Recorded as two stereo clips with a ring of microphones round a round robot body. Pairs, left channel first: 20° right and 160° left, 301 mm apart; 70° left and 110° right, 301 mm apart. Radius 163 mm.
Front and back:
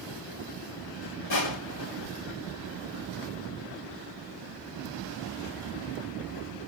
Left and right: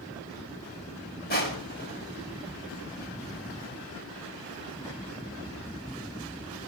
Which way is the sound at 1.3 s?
10° left.